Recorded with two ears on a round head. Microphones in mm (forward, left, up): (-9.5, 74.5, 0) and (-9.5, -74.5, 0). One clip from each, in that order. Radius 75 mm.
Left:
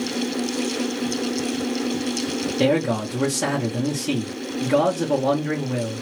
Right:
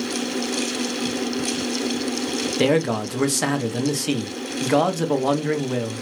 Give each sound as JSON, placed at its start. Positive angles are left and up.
{"t": 2.6, "sound": "a man speaking", "side_deg": -40, "distance_m": 0.7}